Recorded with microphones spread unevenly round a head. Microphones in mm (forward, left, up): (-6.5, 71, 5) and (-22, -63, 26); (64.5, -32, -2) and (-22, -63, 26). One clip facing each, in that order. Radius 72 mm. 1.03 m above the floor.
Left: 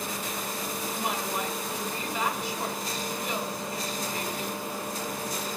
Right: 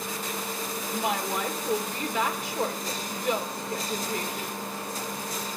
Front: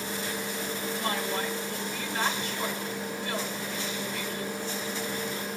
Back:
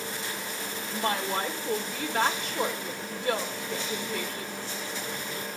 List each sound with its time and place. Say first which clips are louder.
0.9 s a woman speaking: right 4 dB, back 4 dB; 135° right, 4 m